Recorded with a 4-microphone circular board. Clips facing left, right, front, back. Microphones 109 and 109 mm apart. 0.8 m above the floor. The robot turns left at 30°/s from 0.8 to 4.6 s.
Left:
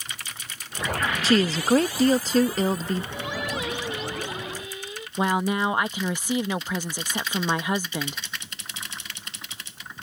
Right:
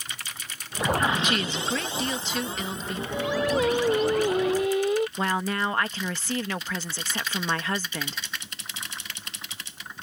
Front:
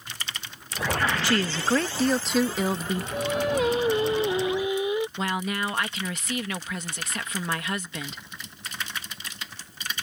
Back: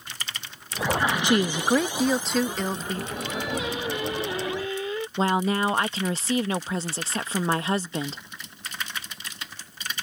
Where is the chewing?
I don't hear chewing.